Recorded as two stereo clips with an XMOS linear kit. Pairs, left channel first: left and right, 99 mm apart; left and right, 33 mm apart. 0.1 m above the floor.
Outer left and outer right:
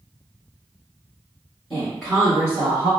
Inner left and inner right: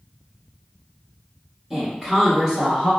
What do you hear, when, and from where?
1.7 s a woman speaking: centre (ahead or behind), 1.6 m; by 2.9 s 15° left (ahead or behind), 2.0 m